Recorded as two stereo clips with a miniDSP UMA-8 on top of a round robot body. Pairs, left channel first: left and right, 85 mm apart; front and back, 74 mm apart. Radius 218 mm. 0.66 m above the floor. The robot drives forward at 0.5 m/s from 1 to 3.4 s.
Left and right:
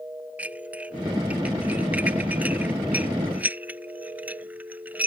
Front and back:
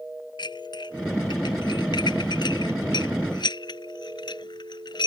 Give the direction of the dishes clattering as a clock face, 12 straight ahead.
1 o'clock.